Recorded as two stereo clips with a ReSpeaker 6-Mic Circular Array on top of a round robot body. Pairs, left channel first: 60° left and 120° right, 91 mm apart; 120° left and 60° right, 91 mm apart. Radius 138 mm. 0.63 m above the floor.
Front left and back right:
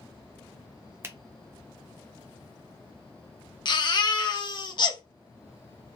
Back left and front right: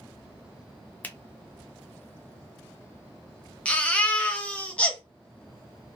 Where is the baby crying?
45° left, 0.7 m.